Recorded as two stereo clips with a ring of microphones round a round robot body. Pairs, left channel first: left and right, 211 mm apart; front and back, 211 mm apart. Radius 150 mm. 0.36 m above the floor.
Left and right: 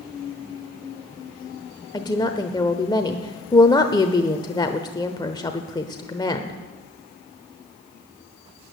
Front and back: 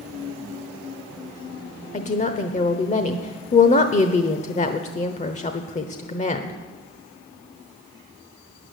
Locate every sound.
1.9 s a woman speaking: 30° left, 1.0 m